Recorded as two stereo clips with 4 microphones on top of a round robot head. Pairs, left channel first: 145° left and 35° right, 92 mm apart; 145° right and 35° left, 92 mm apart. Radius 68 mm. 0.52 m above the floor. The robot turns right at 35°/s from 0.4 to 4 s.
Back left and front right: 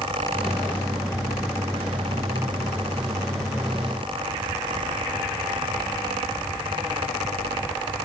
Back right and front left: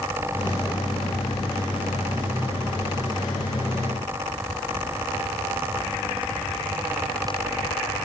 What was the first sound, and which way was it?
Only background noise.